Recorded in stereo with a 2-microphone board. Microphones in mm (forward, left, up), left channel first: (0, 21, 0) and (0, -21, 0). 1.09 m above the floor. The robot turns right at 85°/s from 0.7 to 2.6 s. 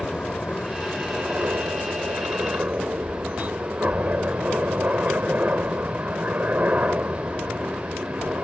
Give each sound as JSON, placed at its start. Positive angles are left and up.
{"t": 0.0, "sound": "a helicopter", "azimuth_deg": 160}